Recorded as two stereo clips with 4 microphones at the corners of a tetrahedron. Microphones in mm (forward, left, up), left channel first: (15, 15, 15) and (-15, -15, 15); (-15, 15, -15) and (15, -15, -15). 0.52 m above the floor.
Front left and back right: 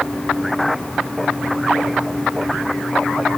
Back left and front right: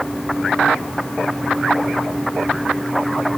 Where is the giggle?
No giggle in this recording.